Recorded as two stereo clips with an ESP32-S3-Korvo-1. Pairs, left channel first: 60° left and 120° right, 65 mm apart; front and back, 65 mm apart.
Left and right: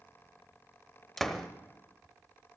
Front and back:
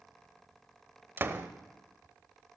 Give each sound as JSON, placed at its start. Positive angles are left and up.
{"t": 1.2, "sound": "a door slam", "azimuth_deg": 140, "distance_m": 0.9}